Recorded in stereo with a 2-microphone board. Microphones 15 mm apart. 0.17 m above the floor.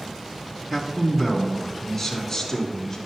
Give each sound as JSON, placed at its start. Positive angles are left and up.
{"t": 0.7, "sound": "a man speaking", "side_deg": -15, "distance_m": 1.6}